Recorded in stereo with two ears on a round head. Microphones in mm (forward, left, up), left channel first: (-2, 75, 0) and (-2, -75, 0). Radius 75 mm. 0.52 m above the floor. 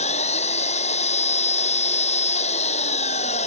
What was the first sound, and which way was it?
An engine running, 40° left (ahead or behind).